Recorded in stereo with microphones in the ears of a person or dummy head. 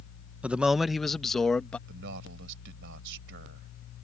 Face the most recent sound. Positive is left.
turn(degrees=-65)  # may be behind; listen again after turning